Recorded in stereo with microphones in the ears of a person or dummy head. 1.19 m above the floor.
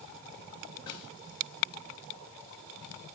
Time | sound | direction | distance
0.9 | a snare drum | 20° left (ahead or behind) | 8 m